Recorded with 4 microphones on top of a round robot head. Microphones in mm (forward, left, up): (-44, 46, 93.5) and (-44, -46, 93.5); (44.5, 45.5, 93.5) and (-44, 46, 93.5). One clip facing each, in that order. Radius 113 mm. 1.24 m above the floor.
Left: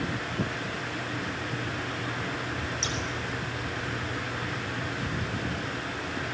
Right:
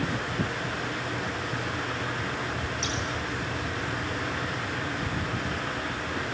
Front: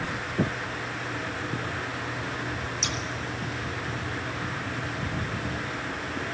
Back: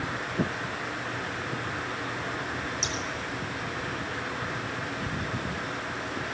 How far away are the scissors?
About 3 m.